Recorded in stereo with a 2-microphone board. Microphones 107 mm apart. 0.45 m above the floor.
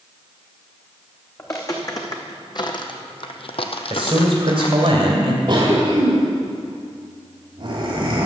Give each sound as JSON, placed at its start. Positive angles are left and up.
{"t": 1.4, "sound": "footsteps", "side_deg": 30, "distance_m": 1.9}
{"t": 3.9, "sound": "a man speaking", "side_deg": -55, "distance_m": 2.5}
{"t": 5.5, "sound": "a cough", "side_deg": -50, "distance_m": 1.9}